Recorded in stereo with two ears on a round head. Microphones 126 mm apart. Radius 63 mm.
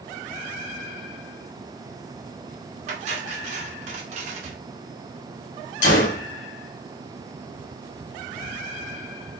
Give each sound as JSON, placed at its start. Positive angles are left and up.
{"t": 2.9, "sound": "cutlery clinking", "side_deg": -50, "distance_m": 1.9}
{"t": 5.8, "sound": "a gunshot", "side_deg": 55, "distance_m": 1.9}